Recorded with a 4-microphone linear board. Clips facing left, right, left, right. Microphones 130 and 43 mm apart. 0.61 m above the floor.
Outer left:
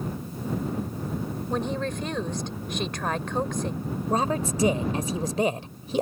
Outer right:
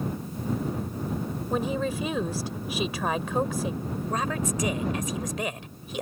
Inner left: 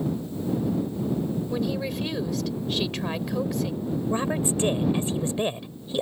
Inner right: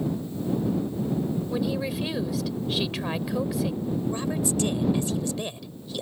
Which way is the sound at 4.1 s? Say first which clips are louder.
Outer left 4 dB, inner left 2 dB; 30° left (ahead or behind).